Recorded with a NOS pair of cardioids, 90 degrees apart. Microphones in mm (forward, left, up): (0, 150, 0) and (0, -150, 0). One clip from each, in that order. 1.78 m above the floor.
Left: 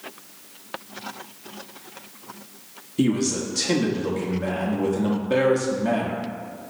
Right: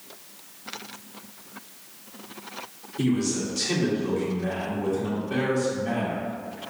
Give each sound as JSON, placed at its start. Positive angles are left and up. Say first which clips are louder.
{"t": 3.0, "sound": "a man speaking", "louder": "left 3 dB", "azimuth_deg": 40, "distance_m": 1.2}